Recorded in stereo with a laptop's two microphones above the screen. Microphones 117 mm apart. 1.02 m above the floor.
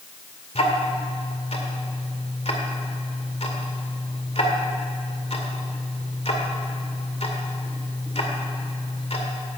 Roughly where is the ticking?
Left.